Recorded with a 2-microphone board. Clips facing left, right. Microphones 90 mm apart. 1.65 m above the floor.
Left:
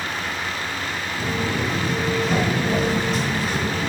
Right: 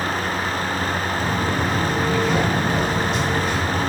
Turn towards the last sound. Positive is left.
turn(degrees=45)  # may be behind; listen again after turning